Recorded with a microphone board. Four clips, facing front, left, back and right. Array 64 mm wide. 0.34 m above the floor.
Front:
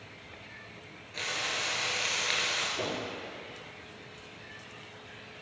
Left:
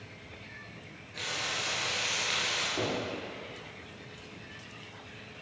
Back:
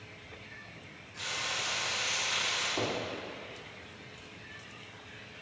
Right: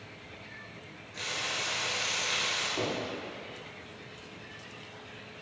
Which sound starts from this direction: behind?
Knocking, at 2.8 s.